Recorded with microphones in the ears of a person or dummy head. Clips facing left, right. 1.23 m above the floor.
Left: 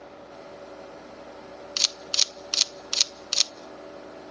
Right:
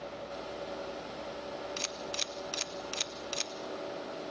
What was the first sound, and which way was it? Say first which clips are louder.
A camera shutter: right 1 dB; 50° left (ahead or behind).